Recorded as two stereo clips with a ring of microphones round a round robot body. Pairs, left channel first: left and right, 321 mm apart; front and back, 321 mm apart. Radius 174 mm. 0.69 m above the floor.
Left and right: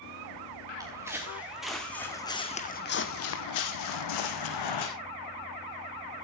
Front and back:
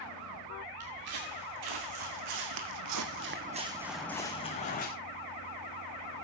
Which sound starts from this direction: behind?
Footsteps, at 0.8 s.